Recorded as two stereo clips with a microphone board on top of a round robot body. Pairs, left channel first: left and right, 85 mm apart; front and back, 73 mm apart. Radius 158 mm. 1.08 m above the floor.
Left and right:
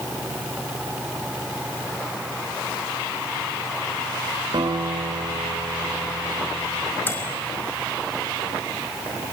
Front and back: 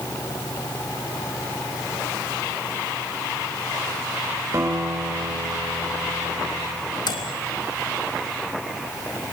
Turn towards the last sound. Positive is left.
turn(degrees=20)